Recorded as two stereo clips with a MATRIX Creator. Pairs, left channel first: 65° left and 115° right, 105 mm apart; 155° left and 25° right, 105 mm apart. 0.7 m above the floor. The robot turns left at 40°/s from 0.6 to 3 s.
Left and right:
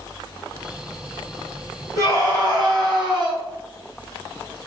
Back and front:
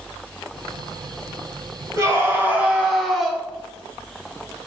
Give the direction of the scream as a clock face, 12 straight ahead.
2 o'clock.